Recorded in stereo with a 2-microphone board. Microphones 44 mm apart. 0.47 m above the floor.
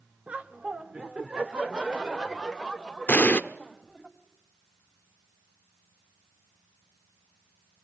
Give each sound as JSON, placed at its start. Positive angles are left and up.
{"t": 0.3, "sound": "laughter", "side_deg": -30, "distance_m": 1.3}
{"t": 3.1, "sound": "an explosion", "side_deg": 40, "distance_m": 0.8}